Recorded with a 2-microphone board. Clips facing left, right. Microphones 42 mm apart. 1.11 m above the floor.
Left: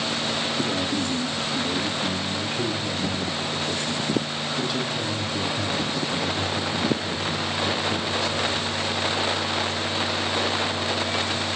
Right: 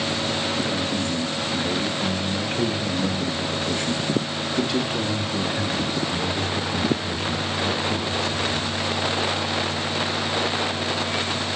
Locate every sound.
0.6 s a man speaking: 20° right (ahead or behind), 2 m; by 8.8 s 55° right (ahead or behind), 4 m